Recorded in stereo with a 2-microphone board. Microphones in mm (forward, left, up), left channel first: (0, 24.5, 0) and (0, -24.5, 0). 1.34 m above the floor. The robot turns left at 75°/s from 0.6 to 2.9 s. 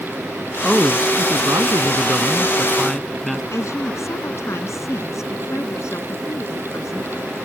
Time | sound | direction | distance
0.6 | a man speaking | 10° right | ?
3.5 | a woman speaking | 80° left | ?